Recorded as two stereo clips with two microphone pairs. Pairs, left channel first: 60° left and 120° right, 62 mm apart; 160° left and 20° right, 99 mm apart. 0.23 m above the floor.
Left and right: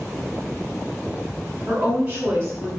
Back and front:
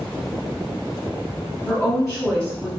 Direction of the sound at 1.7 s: 140° right.